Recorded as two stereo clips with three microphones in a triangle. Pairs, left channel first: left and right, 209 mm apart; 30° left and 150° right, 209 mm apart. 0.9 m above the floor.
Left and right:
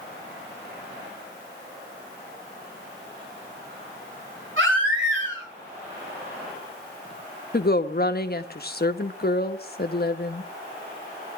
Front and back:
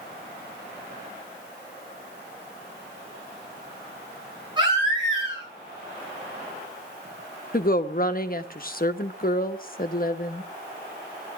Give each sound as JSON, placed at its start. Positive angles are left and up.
{"t": 4.6, "sound": "a baby crying", "azimuth_deg": -85, "distance_m": 9.5}
{"t": 7.5, "sound": "a woman speaking", "azimuth_deg": 65, "distance_m": 1.2}